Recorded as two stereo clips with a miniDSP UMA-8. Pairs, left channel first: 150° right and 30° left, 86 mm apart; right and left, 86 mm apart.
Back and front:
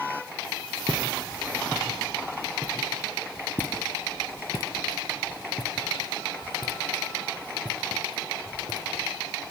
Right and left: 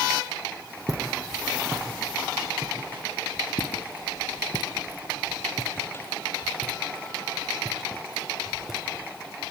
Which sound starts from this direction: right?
Footsteps, at 3.6 s.